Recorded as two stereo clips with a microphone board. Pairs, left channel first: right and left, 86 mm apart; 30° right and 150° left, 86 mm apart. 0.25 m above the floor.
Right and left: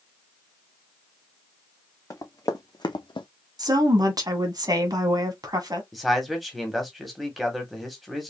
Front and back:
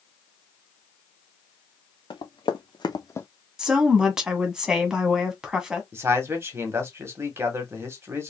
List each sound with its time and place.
2.1 s running footsteps: 40° right, 1.8 m; by 3.3 s 95° right, 0.7 m
3.6 s a woman speaking: 70° left, 1.6 m
5.9 s a man speaking: straight behind, 1.6 m